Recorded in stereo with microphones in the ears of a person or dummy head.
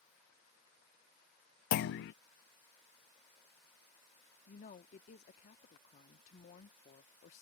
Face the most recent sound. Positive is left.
turn(degrees=50)  # may be behind; listen again after turning